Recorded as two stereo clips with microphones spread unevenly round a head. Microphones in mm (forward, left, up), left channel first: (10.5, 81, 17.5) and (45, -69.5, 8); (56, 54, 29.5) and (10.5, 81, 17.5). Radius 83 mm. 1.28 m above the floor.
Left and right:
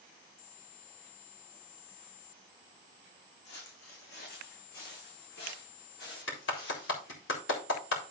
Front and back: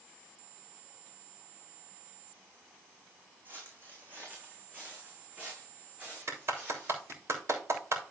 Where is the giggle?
I don't hear a giggle.